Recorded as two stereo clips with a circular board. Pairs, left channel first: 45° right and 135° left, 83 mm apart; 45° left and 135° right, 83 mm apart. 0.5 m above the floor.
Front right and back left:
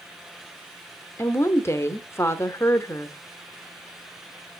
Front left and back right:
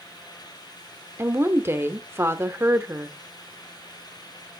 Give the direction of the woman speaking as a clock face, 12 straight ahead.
3 o'clock.